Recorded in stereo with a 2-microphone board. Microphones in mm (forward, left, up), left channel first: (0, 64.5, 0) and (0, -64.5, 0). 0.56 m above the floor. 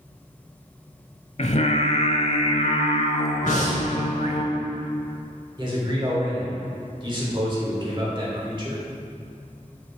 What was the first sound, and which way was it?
Singing, 55° left (ahead or behind).